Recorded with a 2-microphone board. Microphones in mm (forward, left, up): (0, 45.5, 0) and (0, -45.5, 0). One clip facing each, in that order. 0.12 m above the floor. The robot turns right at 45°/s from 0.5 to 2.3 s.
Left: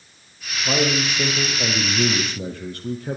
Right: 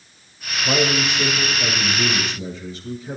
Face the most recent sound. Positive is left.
turn(degrees=70)